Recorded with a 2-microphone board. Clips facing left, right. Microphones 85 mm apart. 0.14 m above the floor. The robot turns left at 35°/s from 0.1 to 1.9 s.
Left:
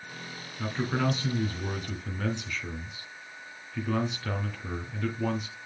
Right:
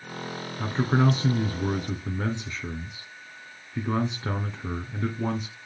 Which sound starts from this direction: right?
A man speaking, at 0.6 s.